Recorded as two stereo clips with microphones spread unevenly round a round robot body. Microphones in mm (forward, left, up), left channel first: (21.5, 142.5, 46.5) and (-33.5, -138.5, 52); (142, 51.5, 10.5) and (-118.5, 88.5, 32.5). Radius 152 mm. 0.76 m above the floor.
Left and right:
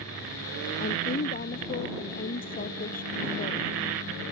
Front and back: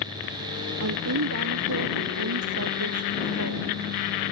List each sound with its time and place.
0.8 s a woman speaking: 140° left